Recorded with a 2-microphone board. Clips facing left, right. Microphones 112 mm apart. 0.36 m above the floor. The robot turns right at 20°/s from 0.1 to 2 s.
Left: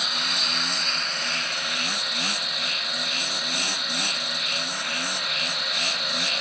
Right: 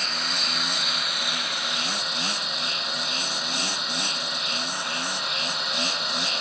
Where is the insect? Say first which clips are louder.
Even; 170° left, 0.8 m; by 6.4 s 150° right, 0.8 m.